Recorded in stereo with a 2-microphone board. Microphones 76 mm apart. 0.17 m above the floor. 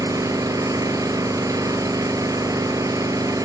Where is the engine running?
50° right (ahead or behind), 1.6 m.